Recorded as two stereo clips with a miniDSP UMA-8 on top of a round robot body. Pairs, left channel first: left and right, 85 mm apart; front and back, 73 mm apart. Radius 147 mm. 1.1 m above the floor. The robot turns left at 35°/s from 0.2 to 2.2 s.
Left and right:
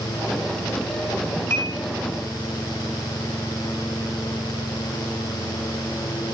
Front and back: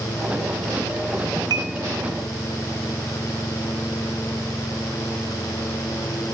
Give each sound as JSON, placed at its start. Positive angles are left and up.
{"t": 1.5, "sound": "dishes clattering", "azimuth_deg": 150, "distance_m": 1.1}